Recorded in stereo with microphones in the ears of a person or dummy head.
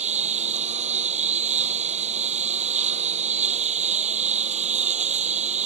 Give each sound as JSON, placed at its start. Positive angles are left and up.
{"t": 0.0, "sound": "a lawn mower", "side_deg": -35}